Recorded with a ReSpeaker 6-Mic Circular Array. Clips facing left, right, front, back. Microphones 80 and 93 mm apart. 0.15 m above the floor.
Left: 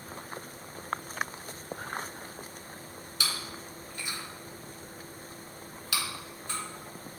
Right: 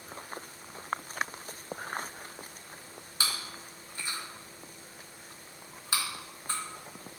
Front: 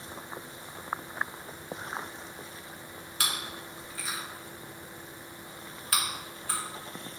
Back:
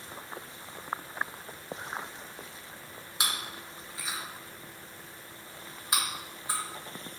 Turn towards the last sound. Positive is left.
turn(degrees=-120)